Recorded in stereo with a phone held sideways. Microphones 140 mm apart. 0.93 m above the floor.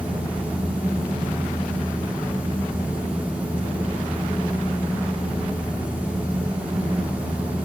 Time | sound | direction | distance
0.0 | a fan | 10° right (ahead or behind) | 1.2 m